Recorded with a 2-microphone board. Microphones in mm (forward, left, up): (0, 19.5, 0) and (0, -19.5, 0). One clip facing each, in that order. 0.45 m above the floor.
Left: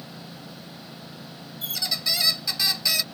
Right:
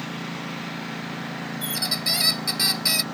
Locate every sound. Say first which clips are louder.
0.0 s a lawn mower: right 10 dB; 80° right
1.6 s a squeak: even; 5° right (ahead or behind)